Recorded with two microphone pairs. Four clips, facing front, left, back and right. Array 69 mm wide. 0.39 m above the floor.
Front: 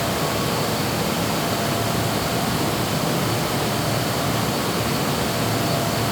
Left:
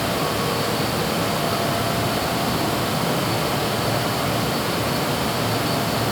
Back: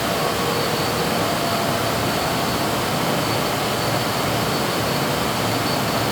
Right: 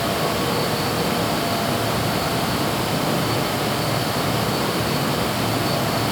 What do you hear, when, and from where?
Only background noise.